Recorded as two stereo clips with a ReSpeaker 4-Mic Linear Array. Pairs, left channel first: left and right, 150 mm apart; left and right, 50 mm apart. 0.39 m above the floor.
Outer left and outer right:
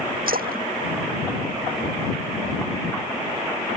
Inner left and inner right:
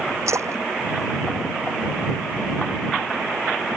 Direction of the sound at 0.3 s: 75° right (ahead or behind).